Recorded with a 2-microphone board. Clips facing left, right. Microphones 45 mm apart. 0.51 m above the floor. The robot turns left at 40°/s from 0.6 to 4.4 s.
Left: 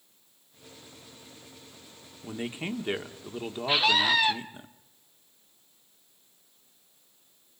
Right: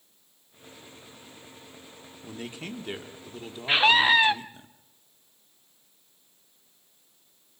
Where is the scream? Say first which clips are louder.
Right 4 dB; 35° right (ahead or behind), 1.0 m; by 4.3 s 25° right (ahead or behind), 1.0 m.